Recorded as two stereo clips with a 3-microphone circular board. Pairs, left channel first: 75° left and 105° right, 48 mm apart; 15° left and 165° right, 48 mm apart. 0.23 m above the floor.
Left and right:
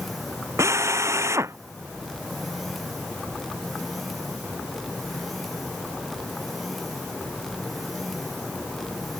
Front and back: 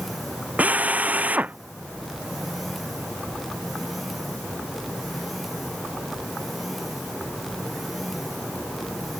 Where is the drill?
105° right.